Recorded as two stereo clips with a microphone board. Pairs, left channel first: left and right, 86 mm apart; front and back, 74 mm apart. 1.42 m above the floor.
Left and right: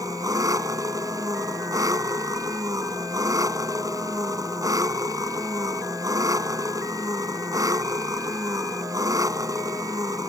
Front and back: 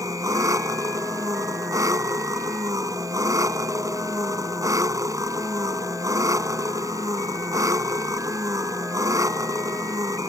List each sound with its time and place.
0.0 s an engine running: 135° right